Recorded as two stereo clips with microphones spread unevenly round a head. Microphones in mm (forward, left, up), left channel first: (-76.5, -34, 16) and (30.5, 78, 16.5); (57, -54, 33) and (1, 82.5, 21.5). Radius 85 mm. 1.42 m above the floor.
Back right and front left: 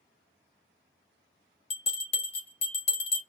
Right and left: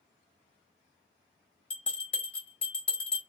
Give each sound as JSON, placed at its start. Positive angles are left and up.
{"t": 1.7, "sound": "a bell", "azimuth_deg": -145, "distance_m": 0.9}